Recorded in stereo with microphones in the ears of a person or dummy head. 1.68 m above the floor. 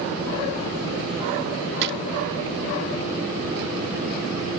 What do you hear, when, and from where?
1.8 s a drawer: 60° right (ahead or behind)